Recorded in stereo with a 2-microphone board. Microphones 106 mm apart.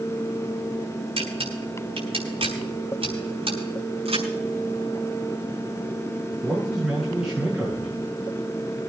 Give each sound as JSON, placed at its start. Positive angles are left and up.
{"t": 1.2, "sound": "a camera shutter", "side_deg": -75, "distance_m": 5.0}
{"t": 4.0, "sound": "a crack", "side_deg": -80, "distance_m": 6.0}
{"t": 6.4, "sound": "a man speaking", "side_deg": -5, "distance_m": 8.0}